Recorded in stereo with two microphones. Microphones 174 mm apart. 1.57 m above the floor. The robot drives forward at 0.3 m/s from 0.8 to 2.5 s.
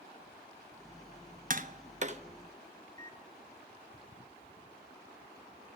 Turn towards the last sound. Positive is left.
turn(degrees=-50)  # may be behind; listen again after turning